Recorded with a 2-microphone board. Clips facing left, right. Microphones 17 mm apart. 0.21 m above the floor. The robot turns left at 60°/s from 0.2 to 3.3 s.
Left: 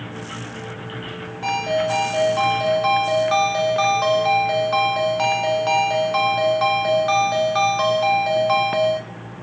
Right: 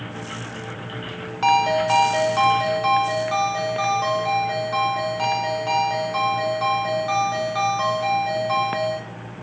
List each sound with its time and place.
1.4 s a ringtone: 100° right, 0.7 m; by 9.0 s 150° left, 0.7 m